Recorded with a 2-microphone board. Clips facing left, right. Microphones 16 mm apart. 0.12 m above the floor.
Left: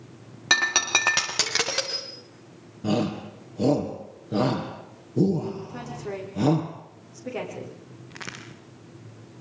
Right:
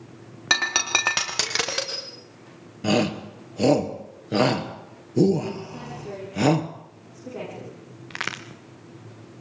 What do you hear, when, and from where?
0.5 s breaking glass: 5° right (ahead or behind), 3.5 m
2.8 s a shout: 50° right (ahead or behind), 2.5 m
5.7 s a woman speaking: 35° left (ahead or behind), 8.5 m
8.1 s a crack: 60° right (ahead or behind), 2.5 m